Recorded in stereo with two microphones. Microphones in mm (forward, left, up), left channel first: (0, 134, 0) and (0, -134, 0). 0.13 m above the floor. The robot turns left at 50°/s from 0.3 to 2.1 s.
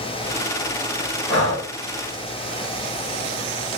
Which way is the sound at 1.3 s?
40° left (ahead or behind).